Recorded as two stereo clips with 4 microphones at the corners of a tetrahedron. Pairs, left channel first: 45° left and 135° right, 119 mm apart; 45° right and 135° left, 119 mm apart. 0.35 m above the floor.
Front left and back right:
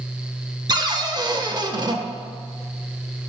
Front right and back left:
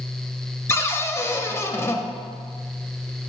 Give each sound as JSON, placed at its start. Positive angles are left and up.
{"t": 0.7, "sound": "a cupboard door", "azimuth_deg": -100, "distance_m": 0.5}